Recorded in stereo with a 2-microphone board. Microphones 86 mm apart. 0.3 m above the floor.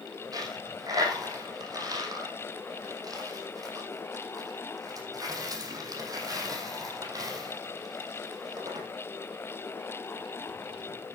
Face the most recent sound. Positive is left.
turn(degrees=-45)  # may be behind; listen again after turning